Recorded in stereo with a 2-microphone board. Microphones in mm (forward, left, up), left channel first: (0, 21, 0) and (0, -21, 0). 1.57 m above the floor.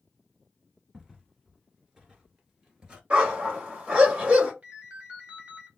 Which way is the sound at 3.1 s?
30° right (ahead or behind).